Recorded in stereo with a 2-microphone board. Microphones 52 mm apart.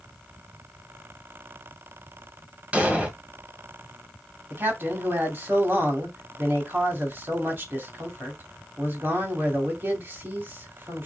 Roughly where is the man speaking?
Right.